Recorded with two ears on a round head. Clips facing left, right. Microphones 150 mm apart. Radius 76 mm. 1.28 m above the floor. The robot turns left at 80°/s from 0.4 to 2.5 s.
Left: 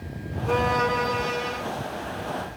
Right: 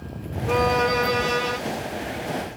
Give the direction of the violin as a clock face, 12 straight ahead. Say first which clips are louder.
Right 3 dB; 12 o'clock.